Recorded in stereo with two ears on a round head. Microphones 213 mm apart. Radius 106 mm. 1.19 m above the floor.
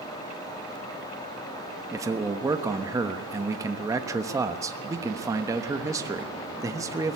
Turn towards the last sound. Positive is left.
turn(degrees=-15)  # may be behind; listen again after turning